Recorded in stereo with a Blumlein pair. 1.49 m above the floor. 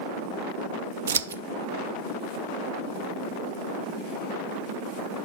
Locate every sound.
1.1 s scissors: 65° right, 0.5 m